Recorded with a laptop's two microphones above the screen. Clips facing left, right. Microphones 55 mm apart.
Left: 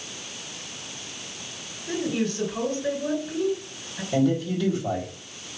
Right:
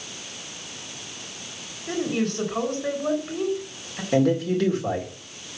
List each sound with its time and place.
1.9 s a woman speaking: 65° right (ahead or behind), 3 m
4.1 s a man speaking: 85° right, 2.5 m